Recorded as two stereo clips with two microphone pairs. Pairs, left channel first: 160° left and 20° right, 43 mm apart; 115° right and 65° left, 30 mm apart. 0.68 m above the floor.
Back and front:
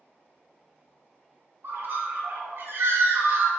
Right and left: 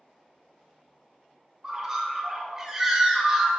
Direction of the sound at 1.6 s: 10° right.